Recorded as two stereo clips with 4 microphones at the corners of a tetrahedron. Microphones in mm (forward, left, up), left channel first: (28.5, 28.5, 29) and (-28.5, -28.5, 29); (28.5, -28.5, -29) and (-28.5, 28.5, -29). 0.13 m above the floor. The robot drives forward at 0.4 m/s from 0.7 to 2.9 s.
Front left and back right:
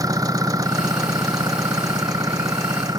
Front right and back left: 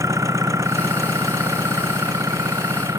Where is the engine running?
175° right.